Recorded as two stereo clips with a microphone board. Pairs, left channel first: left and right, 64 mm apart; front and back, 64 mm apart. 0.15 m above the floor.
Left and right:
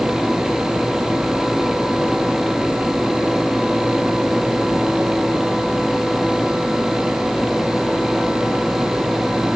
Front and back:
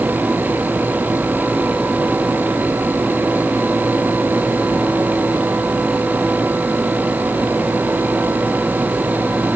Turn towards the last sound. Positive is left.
No sound to turn to.